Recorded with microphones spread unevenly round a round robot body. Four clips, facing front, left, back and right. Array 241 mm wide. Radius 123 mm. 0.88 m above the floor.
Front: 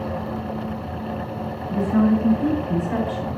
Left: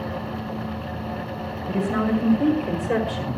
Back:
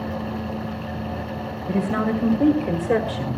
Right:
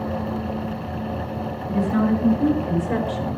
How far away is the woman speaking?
About 5.5 m.